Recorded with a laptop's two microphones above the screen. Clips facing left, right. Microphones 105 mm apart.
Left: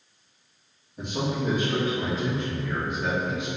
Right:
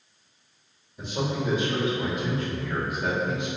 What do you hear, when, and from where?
1.0 s a man speaking: 60° left (ahead or behind), 1.3 m; by 3.5 s 30° right (ahead or behind), 0.8 m